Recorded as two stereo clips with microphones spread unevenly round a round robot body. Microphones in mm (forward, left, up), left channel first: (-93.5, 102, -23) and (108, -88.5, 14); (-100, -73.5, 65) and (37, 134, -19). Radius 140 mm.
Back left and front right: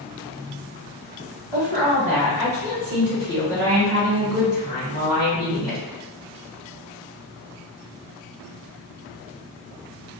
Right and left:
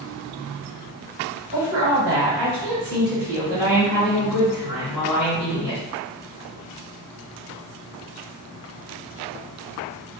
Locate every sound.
1.5 s a woman speaking: 15° left, 1.7 m; by 5.8 s 45° right, 3 m